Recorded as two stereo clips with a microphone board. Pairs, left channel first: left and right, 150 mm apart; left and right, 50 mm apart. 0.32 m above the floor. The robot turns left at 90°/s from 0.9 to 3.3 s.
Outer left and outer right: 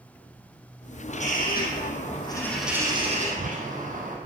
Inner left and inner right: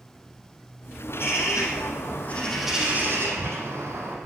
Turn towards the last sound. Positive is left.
turn(degrees=-60)